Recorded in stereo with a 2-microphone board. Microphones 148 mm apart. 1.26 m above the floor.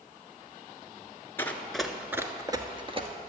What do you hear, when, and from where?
1.4 s running footsteps: 15° left (ahead or behind), 1.2 m; by 3.1 s 40° right (ahead or behind), 1.5 m